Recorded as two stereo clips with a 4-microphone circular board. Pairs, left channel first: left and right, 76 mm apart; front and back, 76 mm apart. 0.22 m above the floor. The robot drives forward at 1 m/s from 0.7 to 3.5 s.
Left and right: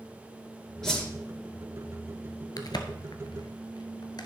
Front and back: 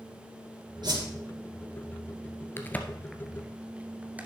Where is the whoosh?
175° left, 3 m.